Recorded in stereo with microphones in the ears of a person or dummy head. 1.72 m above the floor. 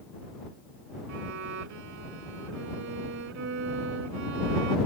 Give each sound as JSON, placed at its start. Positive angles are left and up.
{"t": 1.1, "sound": "a violin", "side_deg": -70}